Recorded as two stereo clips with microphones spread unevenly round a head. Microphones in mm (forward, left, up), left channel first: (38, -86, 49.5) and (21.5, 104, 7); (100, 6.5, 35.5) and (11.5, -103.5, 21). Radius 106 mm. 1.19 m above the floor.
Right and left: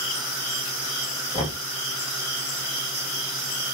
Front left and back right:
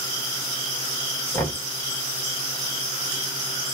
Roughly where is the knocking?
Ahead.